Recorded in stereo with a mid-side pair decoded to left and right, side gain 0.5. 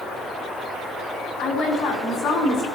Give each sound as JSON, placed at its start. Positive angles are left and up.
{"t": 1.4, "sound": "a woman speaking", "azimuth_deg": 65, "distance_m": 3.5}